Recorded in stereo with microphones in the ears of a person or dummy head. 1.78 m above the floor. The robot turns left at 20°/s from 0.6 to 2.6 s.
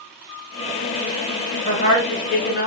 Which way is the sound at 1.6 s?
30° left (ahead or behind).